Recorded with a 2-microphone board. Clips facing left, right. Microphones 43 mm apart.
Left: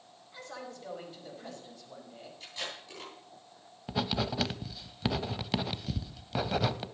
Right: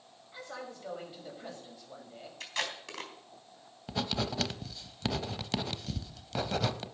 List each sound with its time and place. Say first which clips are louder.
0.3 s a man speaking: right 1 dB; 15° right (ahead or behind), 5.5 m
2.4 s tape being pulled: right 5 dB; 85° right, 3.5 m
3.9 s writing: left 2 dB; 10° left (ahead or behind), 0.8 m